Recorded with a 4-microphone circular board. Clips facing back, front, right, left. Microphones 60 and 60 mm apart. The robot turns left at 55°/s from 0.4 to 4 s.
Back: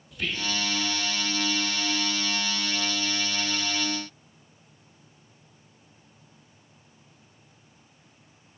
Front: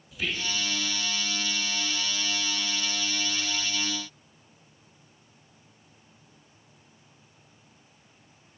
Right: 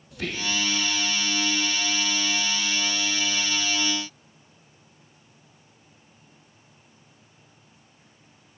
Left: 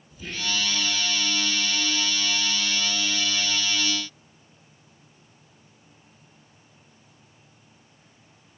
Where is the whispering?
85° right, 3.5 m; by 0.6 s 100° right, 3.5 m.